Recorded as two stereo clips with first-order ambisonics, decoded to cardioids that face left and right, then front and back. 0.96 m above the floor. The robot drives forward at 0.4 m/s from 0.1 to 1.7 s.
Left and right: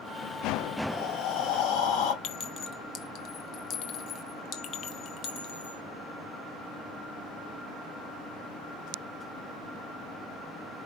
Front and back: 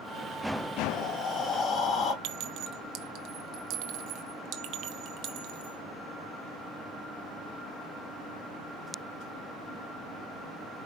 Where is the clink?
140° left, 1.1 m.